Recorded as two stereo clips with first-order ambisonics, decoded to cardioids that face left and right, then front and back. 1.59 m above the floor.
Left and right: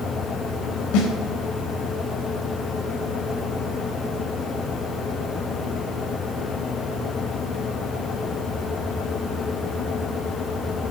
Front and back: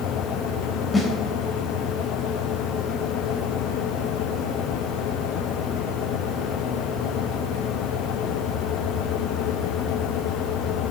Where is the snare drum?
85° left, 3.5 m.